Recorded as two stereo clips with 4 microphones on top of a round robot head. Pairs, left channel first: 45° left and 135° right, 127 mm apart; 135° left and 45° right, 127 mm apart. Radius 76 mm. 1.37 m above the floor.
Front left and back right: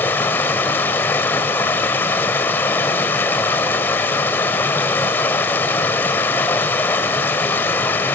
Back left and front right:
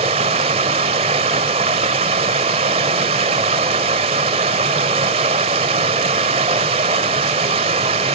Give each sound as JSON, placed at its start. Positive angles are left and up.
{"t": 0.0, "sound": "running water", "azimuth_deg": -25, "distance_m": 1.3}